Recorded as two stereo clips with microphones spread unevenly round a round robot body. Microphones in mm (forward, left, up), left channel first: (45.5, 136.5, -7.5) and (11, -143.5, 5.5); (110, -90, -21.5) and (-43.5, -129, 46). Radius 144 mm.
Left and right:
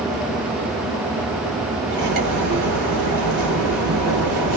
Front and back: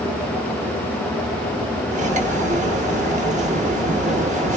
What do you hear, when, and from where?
1.9 s cutlery clinking: 125° right, 0.9 m